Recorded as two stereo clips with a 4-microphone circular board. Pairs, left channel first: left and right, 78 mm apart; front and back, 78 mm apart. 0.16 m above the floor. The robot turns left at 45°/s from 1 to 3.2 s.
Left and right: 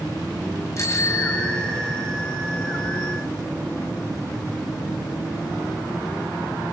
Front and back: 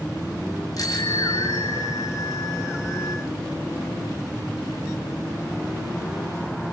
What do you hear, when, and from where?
0.8 s a bicycle bell: 40° left, 7.5 m; by 2.1 s 10° right, 7.5 m